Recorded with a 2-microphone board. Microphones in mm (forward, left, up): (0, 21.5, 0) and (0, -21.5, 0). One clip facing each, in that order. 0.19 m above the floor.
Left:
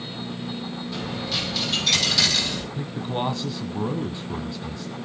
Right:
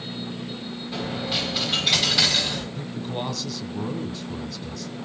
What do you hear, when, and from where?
0.9 s a dropped coin: 20° right (ahead or behind), 7 m
2.8 s a man speaking: 20° left (ahead or behind), 1.0 m